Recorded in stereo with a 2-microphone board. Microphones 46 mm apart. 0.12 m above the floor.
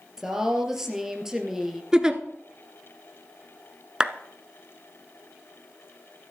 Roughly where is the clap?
Centre.